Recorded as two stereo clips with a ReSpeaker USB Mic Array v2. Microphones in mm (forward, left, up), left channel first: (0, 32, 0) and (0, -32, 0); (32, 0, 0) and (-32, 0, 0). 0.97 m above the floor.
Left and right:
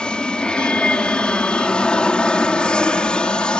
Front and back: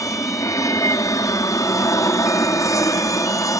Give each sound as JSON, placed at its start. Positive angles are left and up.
{"t": 0.0, "sound": "an aircraft", "azimuth_deg": 15}